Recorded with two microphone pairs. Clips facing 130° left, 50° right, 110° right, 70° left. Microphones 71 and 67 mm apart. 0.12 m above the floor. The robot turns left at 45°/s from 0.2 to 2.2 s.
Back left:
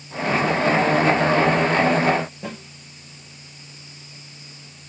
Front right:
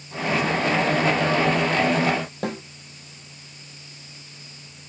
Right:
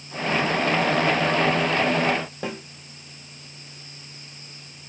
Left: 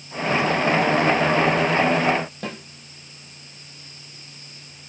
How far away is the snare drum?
About 4.5 m.